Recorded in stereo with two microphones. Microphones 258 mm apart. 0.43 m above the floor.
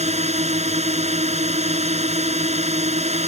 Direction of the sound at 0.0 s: 25° right (ahead or behind).